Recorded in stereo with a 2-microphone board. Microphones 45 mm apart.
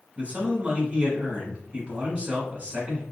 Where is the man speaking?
30° right (ahead or behind), 1.3 m.